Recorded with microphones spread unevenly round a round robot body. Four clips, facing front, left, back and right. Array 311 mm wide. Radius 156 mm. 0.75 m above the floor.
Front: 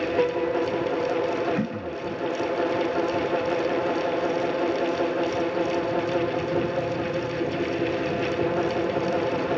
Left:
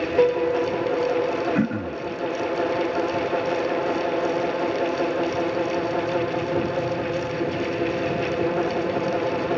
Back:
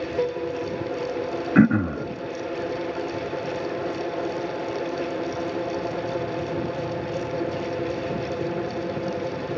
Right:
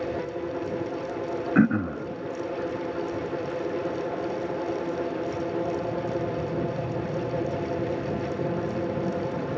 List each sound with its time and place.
0.2 s a piano: 70° left
1.6 s throat clearing: 175° right